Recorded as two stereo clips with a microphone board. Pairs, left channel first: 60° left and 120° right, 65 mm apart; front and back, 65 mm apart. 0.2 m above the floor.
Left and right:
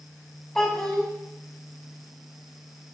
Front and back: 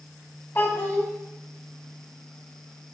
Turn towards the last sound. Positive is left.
turn(degrees=-15)